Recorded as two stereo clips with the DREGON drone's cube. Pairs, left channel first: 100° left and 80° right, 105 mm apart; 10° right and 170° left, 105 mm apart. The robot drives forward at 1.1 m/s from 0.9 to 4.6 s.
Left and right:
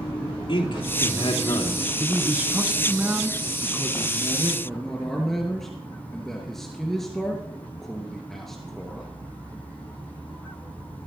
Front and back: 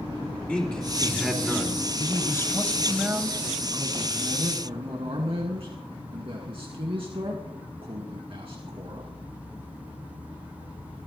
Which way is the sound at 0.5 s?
65° left.